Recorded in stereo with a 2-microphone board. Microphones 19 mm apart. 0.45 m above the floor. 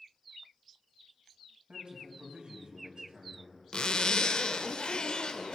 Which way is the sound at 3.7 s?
50° left (ahead or behind).